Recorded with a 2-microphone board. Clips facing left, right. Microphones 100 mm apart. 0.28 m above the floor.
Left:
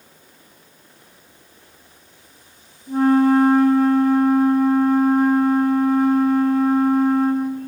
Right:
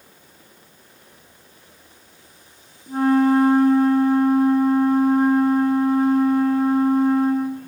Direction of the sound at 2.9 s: 40° right (ahead or behind).